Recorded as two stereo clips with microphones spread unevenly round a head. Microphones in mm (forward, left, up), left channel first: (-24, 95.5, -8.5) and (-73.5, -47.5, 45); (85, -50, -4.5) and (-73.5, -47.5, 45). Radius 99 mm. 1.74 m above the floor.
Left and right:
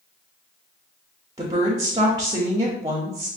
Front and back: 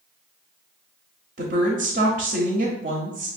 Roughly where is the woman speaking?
Behind.